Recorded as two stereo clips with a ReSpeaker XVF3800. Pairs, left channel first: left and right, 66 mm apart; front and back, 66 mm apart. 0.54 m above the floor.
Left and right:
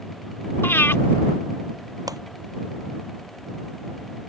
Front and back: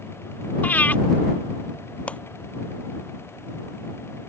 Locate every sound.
0.6 s breathing: 50° left
2.1 s a clap: 70° right